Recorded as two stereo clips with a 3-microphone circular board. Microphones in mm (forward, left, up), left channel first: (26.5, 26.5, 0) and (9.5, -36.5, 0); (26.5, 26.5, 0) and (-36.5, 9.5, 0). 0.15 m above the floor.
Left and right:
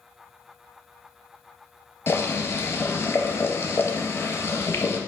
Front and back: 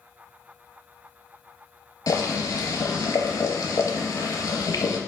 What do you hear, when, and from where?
2.1 s boiling: 30° left, 0.7 m